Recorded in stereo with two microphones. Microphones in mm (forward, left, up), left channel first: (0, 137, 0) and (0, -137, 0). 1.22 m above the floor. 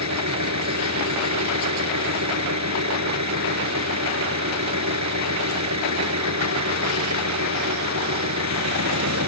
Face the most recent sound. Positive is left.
turn(degrees=-85)